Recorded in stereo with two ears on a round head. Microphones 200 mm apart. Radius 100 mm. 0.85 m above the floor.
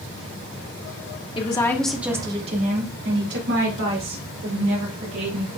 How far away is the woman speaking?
About 1.5 m.